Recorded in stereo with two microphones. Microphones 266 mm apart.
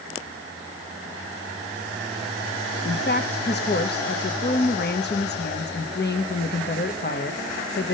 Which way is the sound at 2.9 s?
40° left (ahead or behind).